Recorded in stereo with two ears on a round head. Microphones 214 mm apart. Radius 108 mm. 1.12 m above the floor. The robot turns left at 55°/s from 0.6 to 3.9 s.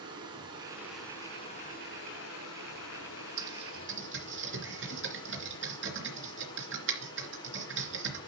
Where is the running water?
160° right, 3 m; by 8.3 s 20° left, 3 m.